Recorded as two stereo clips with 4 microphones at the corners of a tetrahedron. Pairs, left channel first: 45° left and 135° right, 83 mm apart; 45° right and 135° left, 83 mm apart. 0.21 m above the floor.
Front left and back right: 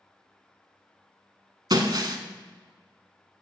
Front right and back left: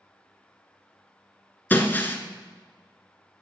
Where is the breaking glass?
110° right, 0.9 m.